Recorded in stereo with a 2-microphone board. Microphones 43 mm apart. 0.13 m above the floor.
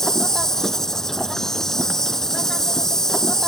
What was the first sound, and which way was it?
An insect, 10° left (ahead or behind).